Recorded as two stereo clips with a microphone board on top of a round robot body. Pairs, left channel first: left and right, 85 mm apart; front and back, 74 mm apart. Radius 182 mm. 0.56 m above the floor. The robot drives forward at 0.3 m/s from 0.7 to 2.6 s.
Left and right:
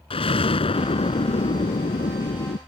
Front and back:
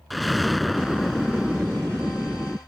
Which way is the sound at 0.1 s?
90° left.